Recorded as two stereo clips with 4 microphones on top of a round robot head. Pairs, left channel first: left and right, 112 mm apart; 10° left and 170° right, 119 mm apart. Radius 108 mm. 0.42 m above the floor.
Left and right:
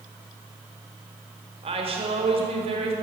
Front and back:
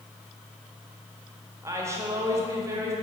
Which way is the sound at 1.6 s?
110° right.